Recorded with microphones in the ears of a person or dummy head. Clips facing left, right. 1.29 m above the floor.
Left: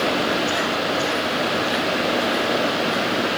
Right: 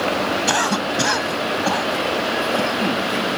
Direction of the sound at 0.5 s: 90° right.